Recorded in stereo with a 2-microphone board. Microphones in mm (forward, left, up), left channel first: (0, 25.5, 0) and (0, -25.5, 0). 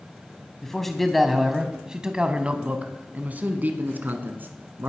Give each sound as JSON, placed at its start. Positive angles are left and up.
{"t": 0.6, "sound": "a man speaking", "side_deg": 10, "distance_m": 1.3}